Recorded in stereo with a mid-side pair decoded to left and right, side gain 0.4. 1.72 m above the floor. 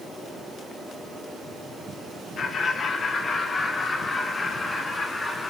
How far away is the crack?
I don't hear a crack.